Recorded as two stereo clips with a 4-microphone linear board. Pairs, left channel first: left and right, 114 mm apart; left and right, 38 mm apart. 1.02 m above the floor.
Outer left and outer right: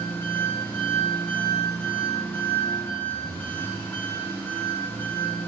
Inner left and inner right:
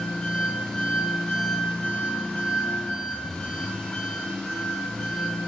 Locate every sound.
0.0 s an engine running: 20° left (ahead or behind), 5 m